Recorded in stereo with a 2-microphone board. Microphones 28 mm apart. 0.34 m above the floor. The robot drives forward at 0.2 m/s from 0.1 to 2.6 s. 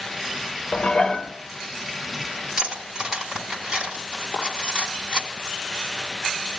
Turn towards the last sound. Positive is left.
turn(degrees=-5)  # may be behind; listen again after turning